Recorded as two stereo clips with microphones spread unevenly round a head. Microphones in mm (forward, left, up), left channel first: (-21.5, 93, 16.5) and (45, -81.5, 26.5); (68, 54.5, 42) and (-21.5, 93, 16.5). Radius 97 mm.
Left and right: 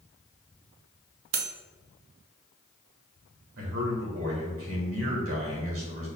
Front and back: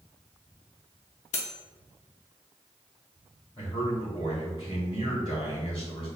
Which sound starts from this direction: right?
A man speaking, at 3.6 s.